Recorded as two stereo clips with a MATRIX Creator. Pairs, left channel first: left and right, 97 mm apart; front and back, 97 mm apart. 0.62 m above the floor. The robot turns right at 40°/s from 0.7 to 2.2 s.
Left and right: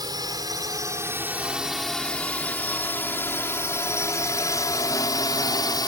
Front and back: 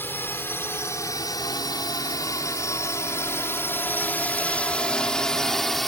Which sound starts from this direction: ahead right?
A drone, at 0.0 s.